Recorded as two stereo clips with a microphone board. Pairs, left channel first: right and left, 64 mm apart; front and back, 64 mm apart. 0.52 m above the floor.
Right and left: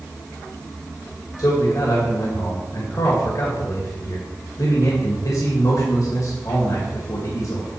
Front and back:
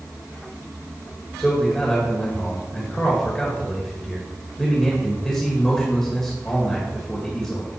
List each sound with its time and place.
1.4 s a man speaking: 80° right, 2.5 m